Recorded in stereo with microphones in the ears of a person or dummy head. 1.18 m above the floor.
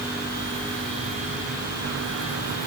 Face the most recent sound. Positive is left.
No sound to turn to.